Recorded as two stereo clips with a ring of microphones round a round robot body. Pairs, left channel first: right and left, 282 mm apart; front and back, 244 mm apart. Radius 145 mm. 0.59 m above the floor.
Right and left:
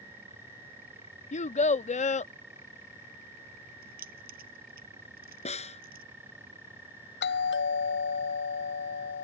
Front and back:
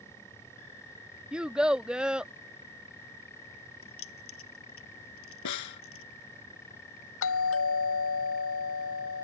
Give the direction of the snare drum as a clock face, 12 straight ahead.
1 o'clock.